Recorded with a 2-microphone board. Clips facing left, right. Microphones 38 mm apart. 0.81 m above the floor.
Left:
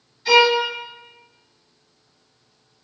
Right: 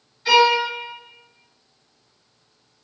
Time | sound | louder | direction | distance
0.2 | a violin | even | 10° right (ahead or behind) | 1.9 m